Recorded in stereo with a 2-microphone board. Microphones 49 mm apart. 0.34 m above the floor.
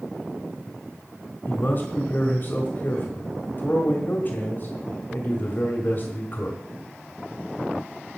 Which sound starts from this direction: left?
A man speaking, at 1.4 s.